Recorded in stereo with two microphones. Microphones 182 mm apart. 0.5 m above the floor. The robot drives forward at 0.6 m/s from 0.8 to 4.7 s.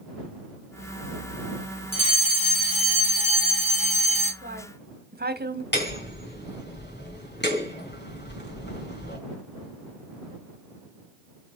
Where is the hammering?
70° left (ahead or behind), 3 m.